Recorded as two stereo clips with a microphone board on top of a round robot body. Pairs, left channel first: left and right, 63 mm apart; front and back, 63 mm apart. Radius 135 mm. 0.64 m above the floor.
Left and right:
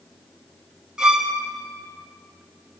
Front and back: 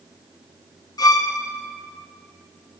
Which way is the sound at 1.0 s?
10° right.